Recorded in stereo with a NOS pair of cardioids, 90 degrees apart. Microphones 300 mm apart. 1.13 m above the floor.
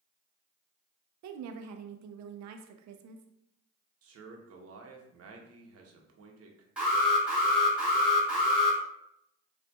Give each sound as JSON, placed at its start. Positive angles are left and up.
{"t": 1.2, "sound": "a woman speaking", "azimuth_deg": -70, "distance_m": 0.6}
{"t": 4.0, "sound": "a man speaking", "azimuth_deg": -55, "distance_m": 0.9}
{"t": 6.8, "sound": "an alarm", "azimuth_deg": -5, "distance_m": 1.6}